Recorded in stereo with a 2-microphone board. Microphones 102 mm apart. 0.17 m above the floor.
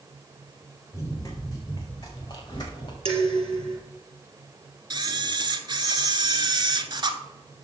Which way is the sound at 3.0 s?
70° right (ahead or behind).